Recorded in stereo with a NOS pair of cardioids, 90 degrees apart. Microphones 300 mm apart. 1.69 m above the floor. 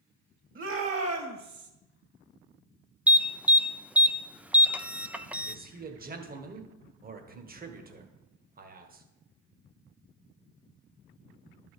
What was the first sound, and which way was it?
A shout, 40° right.